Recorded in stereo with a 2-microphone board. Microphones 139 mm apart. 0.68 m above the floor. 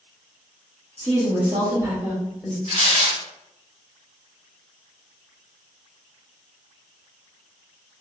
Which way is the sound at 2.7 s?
50° right (ahead or behind).